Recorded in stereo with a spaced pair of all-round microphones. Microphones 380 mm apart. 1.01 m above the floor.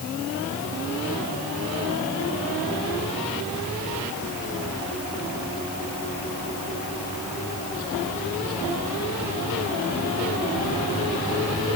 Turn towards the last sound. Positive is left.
No sound to turn to.